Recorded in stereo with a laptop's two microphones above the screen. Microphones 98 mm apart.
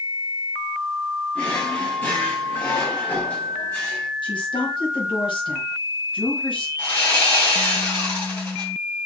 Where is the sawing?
20° left (ahead or behind), 2.5 m.